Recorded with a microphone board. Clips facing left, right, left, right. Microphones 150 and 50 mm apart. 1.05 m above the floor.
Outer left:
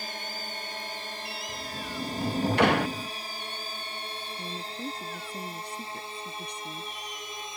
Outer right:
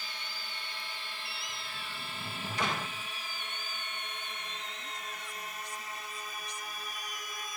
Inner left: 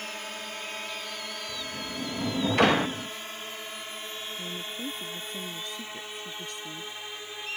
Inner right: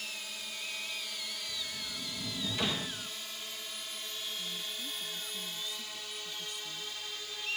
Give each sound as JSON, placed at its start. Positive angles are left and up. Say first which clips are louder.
{"t": 0.0, "sound": "a drone", "louder": "outer left 8 dB, inner left 6 dB", "side_deg": 45}
{"t": 1.5, "sound": "a sliding door", "louder": "outer left 8 dB, inner left 5 dB", "side_deg": 65}
{"t": 4.4, "sound": "a woman speaking", "louder": "outer left 8 dB, inner left 5 dB", "side_deg": 60}